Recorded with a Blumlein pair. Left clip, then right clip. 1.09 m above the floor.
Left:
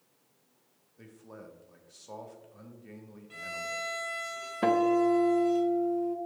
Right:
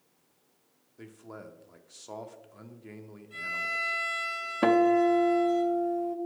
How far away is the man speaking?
About 0.7 m.